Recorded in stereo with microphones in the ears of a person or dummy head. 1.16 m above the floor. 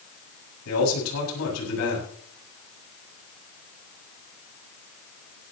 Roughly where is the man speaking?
Left.